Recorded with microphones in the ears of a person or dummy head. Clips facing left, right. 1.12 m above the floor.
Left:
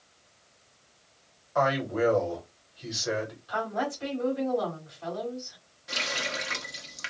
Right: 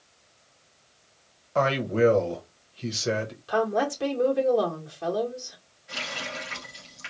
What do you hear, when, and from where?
1.6 s a man speaking: 35° right (ahead or behind), 1.4 m
3.5 s a woman speaking: 65° right (ahead or behind), 1.4 m
5.9 s a running tap: 65° left (ahead or behind), 1.4 m